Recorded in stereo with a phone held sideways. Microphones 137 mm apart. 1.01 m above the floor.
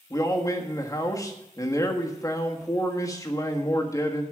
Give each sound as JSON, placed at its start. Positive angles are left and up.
{"t": 0.1, "sound": "a man speaking", "side_deg": 25, "distance_m": 1.6}